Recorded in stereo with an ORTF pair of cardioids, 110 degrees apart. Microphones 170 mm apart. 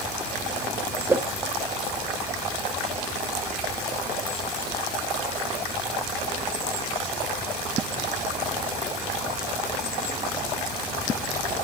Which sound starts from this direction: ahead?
A whoosh, at 1.1 s.